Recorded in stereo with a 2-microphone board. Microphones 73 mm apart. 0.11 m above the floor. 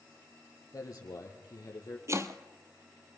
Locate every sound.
0.7 s a man speaking: 50° left (ahead or behind), 4 m
2.1 s chopping: 40° right (ahead or behind), 1.2 m